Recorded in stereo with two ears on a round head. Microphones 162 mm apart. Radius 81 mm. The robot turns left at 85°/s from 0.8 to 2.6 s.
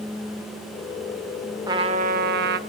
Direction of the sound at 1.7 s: 20° right.